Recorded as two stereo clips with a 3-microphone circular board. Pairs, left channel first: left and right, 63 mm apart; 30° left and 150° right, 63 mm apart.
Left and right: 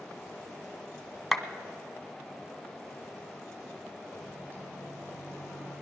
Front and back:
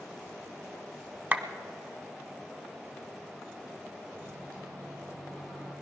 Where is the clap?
Straight behind, 1.0 m.